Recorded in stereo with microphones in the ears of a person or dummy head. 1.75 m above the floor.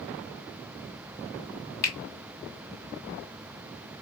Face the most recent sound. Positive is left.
turn(degrees=15)  # may be behind; listen again after turning